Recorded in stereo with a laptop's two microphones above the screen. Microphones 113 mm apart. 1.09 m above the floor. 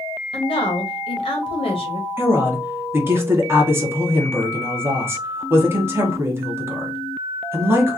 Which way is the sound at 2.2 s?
20° right (ahead or behind).